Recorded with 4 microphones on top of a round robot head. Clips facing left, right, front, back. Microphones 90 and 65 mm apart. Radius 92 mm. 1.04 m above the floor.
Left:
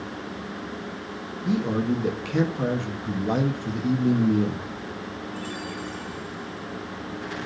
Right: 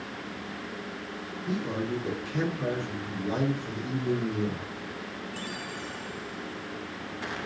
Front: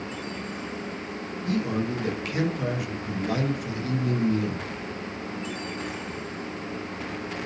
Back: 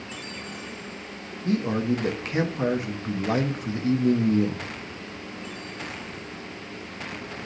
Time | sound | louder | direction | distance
1.4 | a man speaking | left 7 dB, back 3 dB | 120° left | 1.5 m